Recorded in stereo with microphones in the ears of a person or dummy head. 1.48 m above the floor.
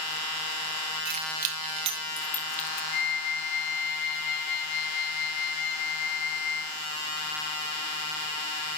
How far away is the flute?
About 7 m.